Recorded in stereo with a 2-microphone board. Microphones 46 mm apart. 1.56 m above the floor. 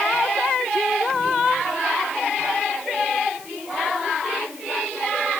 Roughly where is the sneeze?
I don't hear a sneeze.